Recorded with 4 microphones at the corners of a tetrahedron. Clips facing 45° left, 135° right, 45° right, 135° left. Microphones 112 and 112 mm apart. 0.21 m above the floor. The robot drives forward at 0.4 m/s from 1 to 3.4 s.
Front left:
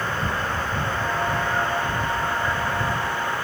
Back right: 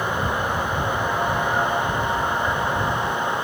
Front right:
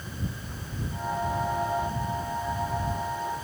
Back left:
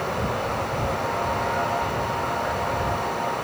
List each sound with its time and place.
0.0 s running water: 150° left; by 3.4 s 155° left